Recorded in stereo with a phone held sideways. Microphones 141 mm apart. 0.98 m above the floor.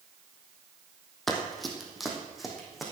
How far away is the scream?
I don't hear a scream.